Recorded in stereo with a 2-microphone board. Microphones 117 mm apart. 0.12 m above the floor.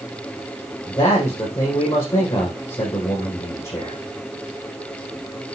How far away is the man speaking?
About 4.5 m.